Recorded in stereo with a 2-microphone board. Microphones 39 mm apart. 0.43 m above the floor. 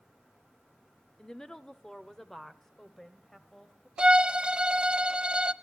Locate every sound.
1.2 s a woman speaking: 15° left (ahead or behind), 0.8 m; by 3.9 s 10° left (ahead or behind), 2.0 m
4.0 s a violin: 30° right (ahead or behind), 0.6 m